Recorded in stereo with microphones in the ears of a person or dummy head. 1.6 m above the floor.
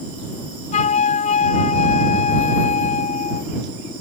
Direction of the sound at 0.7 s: 40° left (ahead or behind).